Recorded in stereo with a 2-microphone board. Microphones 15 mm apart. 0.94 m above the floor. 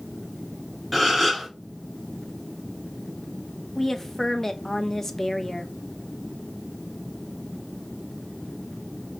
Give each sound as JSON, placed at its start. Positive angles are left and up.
{"t": 0.9, "sound": "a gasp", "side_deg": 0, "distance_m": 3.5}
{"t": 3.8, "sound": "a woman speaking", "side_deg": 15, "distance_m": 1.0}